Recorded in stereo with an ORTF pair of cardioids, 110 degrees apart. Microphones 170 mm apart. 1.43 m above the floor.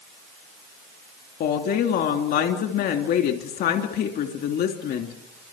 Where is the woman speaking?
70° left, 3 m.